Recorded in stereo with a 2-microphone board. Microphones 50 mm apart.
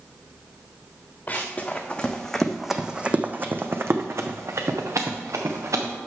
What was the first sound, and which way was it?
Running footsteps, 30° left (ahead or behind).